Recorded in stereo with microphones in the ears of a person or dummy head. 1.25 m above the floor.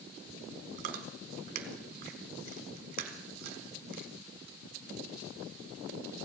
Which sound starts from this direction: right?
Chewing, at 0.8 s.